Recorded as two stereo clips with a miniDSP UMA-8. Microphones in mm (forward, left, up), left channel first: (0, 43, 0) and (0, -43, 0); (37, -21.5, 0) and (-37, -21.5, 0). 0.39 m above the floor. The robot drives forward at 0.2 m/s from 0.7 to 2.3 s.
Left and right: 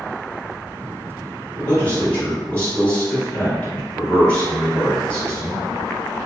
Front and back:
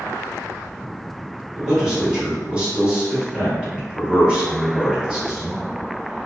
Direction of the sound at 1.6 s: 105° left.